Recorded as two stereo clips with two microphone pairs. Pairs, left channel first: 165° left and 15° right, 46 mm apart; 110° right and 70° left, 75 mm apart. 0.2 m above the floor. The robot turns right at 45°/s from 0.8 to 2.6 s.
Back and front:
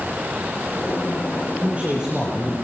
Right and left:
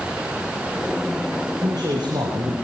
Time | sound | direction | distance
1.6 | a man speaking | 40° left | 6.5 m